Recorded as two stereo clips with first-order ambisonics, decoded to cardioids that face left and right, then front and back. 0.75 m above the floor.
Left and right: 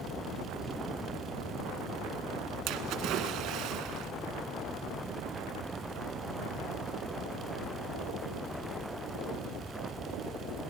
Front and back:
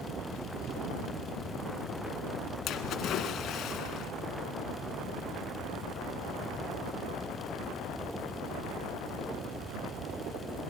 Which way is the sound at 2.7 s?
55° right.